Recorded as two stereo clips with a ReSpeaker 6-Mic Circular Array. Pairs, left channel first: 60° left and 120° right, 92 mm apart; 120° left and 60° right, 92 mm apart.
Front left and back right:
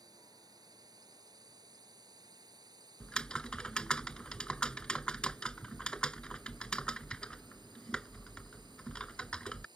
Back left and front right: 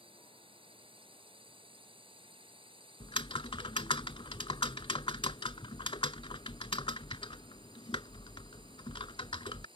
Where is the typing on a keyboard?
140° left.